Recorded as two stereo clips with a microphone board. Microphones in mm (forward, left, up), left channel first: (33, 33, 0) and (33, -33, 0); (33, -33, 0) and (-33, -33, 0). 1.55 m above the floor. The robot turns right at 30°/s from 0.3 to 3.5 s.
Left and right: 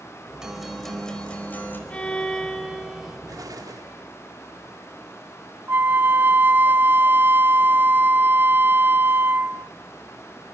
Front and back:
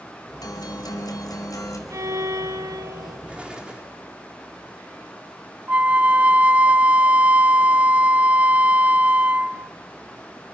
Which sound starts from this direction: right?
An explosion, at 3.3 s.